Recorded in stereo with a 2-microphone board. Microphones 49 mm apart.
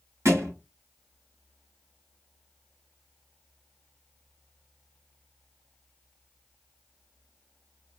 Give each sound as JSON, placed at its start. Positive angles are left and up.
{"t": 0.2, "sound": "a thud", "side_deg": -85, "distance_m": 1.4}